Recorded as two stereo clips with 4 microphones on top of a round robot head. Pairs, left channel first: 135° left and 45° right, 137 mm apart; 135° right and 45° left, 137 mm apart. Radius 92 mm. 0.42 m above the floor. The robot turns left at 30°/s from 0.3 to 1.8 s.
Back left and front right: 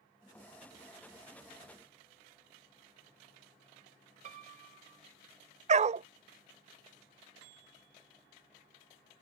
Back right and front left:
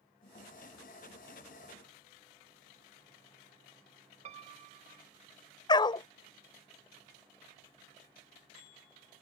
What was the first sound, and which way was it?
A piano, 5° right.